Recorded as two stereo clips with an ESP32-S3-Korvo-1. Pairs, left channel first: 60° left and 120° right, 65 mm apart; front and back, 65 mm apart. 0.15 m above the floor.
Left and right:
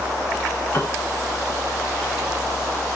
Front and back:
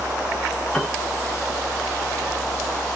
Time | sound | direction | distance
0.7 | a piano | 60° left | 2 m